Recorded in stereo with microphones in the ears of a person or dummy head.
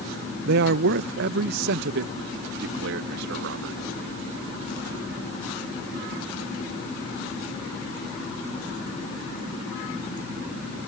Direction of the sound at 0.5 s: 60° right (ahead or behind).